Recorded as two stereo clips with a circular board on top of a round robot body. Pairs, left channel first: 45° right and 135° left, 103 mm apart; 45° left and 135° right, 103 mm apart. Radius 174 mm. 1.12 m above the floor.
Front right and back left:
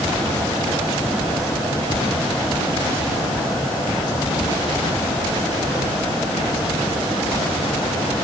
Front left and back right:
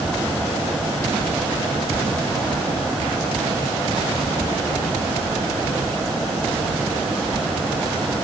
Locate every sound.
Only background noise.